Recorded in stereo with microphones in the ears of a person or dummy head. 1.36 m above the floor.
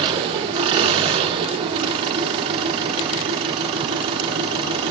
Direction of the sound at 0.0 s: 30° right (ahead or behind).